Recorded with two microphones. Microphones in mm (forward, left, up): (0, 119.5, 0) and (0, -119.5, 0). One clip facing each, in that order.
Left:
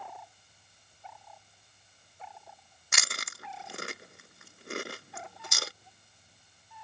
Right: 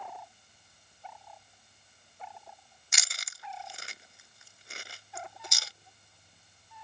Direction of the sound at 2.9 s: 70° left (ahead or behind).